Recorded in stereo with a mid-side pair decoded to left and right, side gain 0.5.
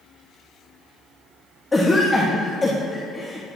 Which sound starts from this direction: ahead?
A cough, at 1.7 s.